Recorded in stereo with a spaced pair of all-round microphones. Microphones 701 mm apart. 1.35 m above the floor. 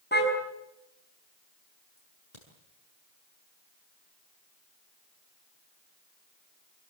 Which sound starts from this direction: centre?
A car horn, at 0.1 s.